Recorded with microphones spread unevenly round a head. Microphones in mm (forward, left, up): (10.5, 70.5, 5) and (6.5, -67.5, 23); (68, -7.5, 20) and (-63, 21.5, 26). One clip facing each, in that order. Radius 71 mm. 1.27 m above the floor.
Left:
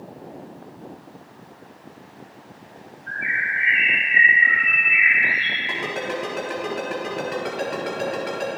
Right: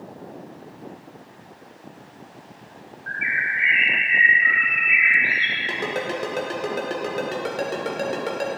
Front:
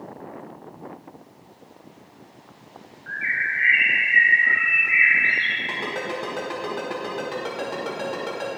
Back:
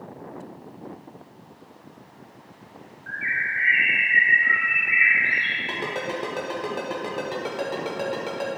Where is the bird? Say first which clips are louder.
Even, front 1 dB; 70° right, 1.8 m.